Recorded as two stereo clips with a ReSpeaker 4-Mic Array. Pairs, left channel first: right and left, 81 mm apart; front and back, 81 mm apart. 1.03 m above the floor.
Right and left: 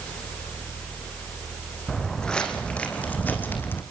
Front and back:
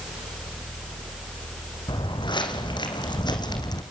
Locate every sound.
1.9 s footsteps: 5° right, 3 m; by 3.8 s 30° right, 3 m